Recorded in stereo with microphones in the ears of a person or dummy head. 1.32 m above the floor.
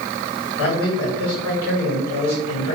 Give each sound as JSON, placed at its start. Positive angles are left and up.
{"t": 0.6, "sound": "a man speaking", "side_deg": 70, "distance_m": 1.7}